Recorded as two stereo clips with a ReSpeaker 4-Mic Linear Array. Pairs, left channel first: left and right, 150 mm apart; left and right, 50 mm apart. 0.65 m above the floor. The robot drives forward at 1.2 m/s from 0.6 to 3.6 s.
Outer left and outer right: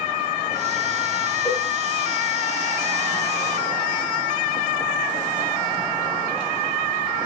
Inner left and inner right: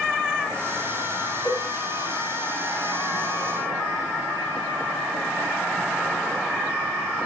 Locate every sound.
1.4 s a cowbell: 5° right (ahead or behind), 3.5 m